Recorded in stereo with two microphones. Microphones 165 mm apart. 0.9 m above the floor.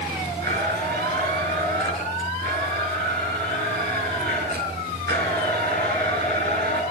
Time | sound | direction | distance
0.4 | a blender | 70° right (ahead or behind) | 5.5 m